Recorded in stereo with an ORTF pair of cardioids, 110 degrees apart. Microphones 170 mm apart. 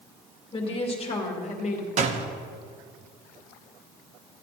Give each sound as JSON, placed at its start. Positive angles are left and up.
{"t": 0.5, "sound": "a woman speaking", "azimuth_deg": 30, "distance_m": 2.5}
{"t": 2.0, "sound": "a door slam", "azimuth_deg": -45, "distance_m": 1.1}